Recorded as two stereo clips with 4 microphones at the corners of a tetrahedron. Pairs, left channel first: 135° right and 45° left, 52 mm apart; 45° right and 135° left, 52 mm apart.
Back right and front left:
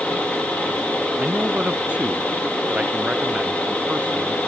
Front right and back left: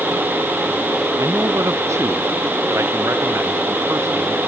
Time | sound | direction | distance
1.2 | a man speaking | 115° left | ?